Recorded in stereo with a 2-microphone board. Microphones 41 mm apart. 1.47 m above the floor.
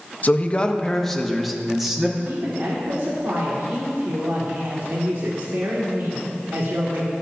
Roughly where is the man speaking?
Left.